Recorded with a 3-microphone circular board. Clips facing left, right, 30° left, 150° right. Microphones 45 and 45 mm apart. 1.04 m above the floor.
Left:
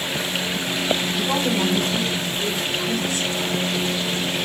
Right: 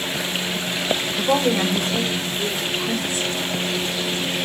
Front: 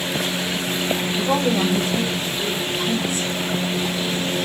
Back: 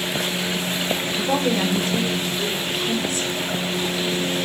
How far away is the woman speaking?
About 3 m.